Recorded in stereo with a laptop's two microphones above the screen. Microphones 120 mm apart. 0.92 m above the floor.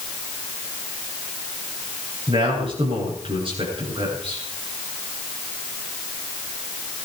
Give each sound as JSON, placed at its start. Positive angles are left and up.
{"t": 2.3, "sound": "a man speaking", "side_deg": -45, "distance_m": 10.0}